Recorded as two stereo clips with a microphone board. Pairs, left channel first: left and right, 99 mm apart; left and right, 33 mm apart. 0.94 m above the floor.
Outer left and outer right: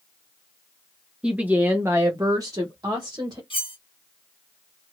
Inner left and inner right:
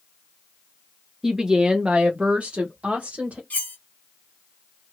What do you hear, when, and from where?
1.2 s a woman speaking: 10° right (ahead or behind), 0.8 m; by 3.4 s 45° right (ahead or behind), 1.2 m
3.5 s cutlery clinking: 60° left (ahead or behind), 1.0 m